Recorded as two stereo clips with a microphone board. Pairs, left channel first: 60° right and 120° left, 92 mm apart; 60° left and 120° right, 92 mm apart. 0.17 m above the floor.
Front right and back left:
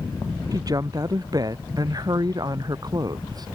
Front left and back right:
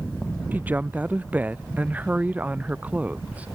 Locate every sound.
0.5 s a woman speaking: 170° left; by 3.5 s 165° left